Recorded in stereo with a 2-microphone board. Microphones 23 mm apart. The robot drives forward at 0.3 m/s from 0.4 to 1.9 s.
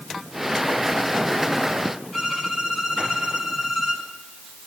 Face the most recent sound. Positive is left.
turn(degrees=-20)  # may be behind; listen again after turning